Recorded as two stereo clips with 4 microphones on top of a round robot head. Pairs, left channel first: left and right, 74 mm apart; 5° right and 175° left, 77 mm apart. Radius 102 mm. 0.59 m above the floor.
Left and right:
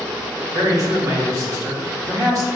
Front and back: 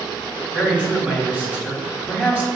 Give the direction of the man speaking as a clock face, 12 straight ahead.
4 o'clock.